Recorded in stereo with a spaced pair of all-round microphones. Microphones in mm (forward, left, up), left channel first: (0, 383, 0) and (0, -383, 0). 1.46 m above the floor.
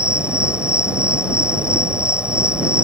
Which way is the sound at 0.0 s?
Centre (ahead or behind).